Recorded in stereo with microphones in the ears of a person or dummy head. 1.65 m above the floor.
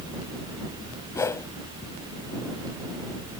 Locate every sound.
1.1 s a whoosh: 15° left (ahead or behind)